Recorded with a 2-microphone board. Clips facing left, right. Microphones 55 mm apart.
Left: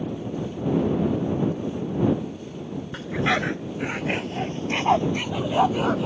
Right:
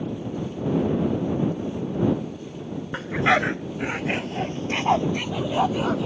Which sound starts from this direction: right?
A dog barking, at 2.9 s.